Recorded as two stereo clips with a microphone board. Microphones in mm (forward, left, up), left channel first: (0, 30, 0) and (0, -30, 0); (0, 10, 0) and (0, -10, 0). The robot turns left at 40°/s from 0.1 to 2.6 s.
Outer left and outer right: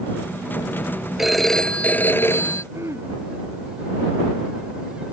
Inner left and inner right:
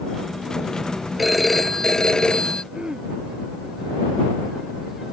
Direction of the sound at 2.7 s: 45° right (ahead or behind).